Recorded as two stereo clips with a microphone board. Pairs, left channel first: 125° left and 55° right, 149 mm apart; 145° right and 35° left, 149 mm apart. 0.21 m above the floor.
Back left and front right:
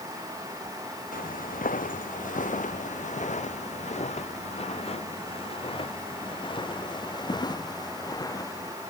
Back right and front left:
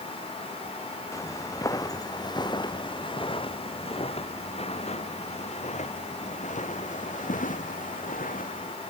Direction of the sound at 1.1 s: 145° left.